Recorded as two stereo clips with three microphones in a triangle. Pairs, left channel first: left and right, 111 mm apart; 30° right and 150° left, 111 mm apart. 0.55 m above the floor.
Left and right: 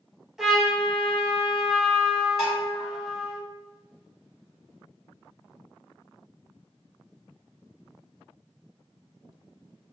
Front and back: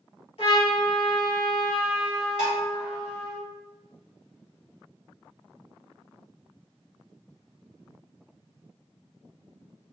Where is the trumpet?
5° right, 0.8 m.